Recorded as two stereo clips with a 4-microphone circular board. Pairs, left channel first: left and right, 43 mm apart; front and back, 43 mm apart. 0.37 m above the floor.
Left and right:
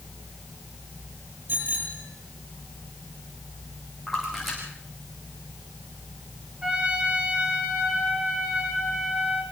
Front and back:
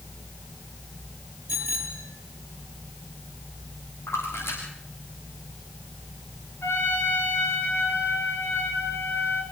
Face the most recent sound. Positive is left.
turn(degrees=-25)